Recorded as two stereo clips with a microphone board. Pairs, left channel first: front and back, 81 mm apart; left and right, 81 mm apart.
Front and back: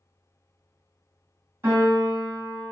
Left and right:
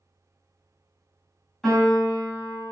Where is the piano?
175° left, 1.7 m.